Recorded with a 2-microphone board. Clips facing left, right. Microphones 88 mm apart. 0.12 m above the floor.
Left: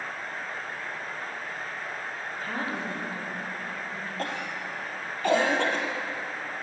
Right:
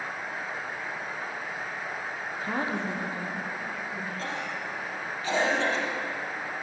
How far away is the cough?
About 3 m.